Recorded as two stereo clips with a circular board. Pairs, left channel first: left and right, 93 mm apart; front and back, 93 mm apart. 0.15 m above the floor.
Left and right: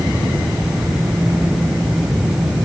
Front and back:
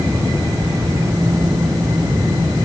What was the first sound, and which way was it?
Only background noise.